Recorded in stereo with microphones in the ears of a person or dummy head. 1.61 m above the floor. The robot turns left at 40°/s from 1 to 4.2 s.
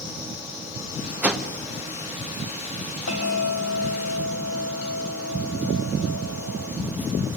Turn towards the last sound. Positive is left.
turn(degrees=65)